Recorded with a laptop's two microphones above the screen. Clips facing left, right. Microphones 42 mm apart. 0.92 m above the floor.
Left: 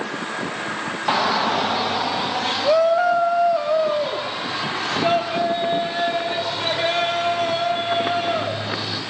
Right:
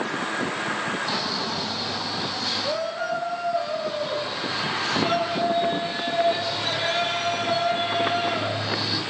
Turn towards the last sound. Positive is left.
turn(degrees=30)  # may be behind; listen again after turning